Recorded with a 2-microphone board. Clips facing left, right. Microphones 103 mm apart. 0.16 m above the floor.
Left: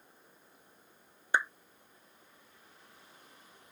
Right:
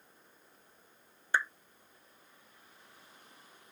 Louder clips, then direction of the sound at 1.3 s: Left 1 dB; 15° left (ahead or behind).